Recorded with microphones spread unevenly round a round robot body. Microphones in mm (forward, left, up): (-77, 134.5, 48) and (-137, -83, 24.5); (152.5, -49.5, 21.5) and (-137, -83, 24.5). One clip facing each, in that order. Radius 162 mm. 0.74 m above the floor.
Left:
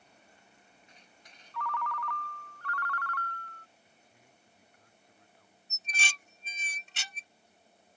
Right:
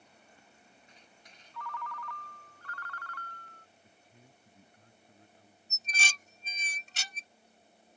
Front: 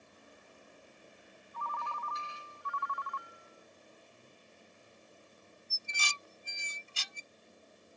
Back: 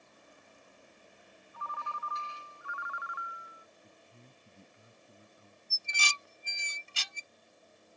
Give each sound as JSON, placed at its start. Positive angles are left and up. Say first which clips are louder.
{"t": 1.5, "sound": "a ringtone", "louder": "left 6 dB, front 2 dB", "azimuth_deg": 105}
{"t": 3.8, "sound": "a man speaking", "louder": "right 3 dB, even", "azimuth_deg": -165}
{"t": 5.7, "sound": "dishes clattering", "louder": "right 1 dB, back 3 dB", "azimuth_deg": -155}